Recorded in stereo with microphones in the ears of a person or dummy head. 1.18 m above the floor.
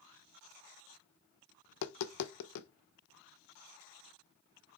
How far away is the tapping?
About 0.5 m.